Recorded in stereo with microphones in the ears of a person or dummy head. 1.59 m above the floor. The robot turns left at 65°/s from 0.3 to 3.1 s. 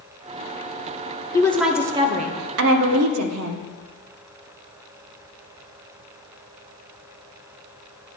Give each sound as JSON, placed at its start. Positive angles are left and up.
{"t": 1.3, "sound": "a woman speaking", "azimuth_deg": 20, "distance_m": 0.7}